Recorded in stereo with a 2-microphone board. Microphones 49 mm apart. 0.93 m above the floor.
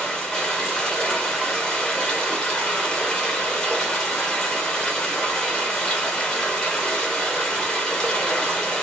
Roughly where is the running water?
Centre.